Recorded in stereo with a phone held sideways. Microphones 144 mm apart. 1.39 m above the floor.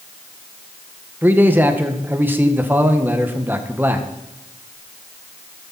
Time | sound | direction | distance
1.2 | a man speaking | 15° right (ahead or behind) | 1.5 m